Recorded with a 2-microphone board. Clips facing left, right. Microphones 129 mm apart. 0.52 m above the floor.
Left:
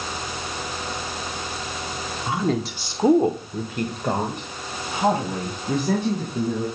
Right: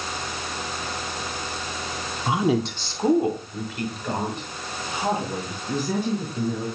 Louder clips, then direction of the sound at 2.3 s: Right 2 dB; 25° right (ahead or behind).